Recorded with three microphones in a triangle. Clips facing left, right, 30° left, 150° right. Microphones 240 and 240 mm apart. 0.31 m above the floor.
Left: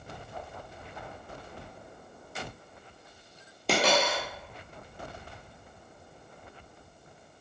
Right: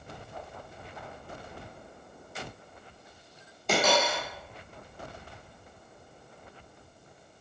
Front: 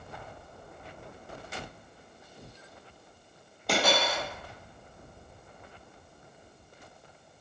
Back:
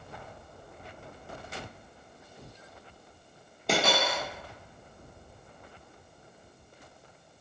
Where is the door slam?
No door slam in this recording.